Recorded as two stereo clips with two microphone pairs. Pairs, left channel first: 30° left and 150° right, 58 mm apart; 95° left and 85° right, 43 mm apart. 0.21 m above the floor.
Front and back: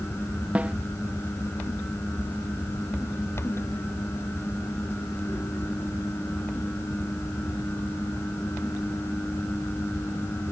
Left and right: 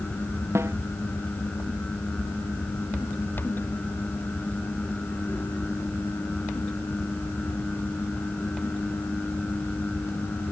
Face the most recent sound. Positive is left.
turn(degrees=-80)